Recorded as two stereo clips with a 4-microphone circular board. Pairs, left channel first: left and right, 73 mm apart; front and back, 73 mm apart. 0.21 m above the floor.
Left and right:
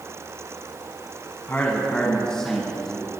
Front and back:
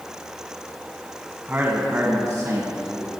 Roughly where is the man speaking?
Behind left.